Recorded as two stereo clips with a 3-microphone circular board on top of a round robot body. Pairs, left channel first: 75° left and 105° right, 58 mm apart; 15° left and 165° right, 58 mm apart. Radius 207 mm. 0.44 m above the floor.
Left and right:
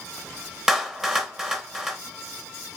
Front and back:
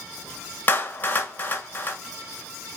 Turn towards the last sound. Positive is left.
turn(degrees=-25)